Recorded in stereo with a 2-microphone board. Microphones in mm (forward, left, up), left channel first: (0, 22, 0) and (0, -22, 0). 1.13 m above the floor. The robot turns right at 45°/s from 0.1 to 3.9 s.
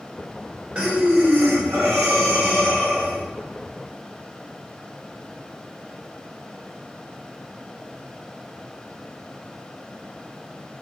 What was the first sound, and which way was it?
Breathing, 155° right.